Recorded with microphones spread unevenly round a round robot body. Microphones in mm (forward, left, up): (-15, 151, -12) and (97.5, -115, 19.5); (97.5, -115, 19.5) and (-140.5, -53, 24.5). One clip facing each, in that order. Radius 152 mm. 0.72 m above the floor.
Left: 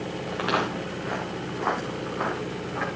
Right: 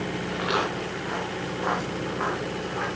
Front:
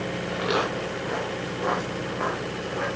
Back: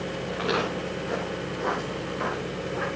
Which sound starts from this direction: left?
Footsteps, at 0.3 s.